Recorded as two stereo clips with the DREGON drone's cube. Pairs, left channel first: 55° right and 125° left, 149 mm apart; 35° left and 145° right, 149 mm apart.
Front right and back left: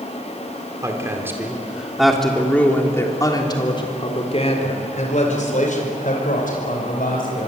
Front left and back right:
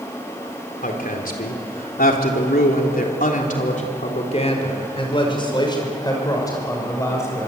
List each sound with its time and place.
0.8 s a woman speaking: 55° left, 4 m; by 7.5 s 40° right, 7 m